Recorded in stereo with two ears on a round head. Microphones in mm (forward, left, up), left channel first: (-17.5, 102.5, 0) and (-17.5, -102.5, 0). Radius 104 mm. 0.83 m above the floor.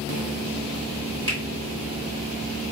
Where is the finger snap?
20° right (ahead or behind), 1.5 m.